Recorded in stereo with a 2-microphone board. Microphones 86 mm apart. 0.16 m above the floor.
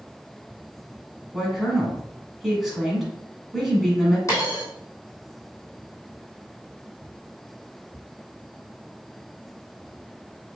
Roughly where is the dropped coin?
Left.